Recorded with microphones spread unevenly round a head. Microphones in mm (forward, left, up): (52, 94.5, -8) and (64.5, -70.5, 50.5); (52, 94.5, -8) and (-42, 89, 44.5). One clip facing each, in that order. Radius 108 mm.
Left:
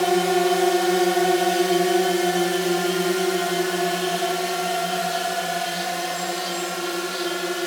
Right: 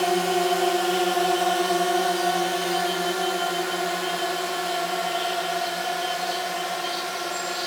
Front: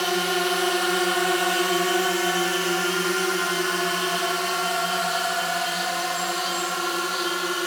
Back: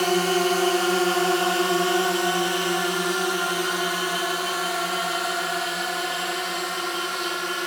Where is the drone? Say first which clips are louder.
Left 3 dB, back 3 dB; 130° left; by 7.7 s 65° left.